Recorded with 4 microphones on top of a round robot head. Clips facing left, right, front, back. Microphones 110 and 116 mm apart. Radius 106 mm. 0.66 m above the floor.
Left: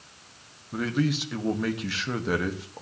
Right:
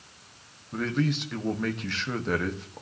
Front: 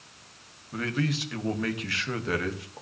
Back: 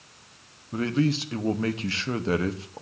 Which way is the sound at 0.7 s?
165° left.